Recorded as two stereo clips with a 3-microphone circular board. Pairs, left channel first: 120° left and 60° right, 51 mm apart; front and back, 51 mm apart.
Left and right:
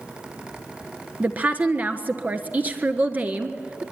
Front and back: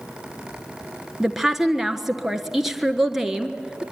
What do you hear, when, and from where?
1.2 s a woman speaking: 100° right, 1.4 m